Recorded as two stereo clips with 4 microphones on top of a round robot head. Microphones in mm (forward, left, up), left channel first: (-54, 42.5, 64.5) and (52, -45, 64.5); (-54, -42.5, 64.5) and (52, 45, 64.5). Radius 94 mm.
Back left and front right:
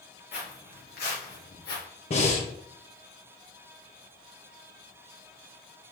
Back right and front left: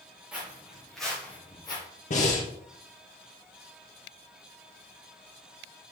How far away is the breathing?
About 1.9 m.